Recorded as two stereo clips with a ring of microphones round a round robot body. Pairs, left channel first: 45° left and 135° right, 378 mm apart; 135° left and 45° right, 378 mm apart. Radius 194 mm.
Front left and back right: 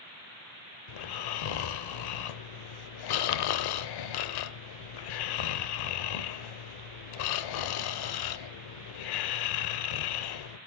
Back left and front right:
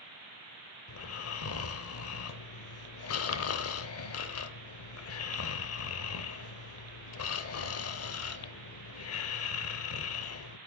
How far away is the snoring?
About 0.6 m.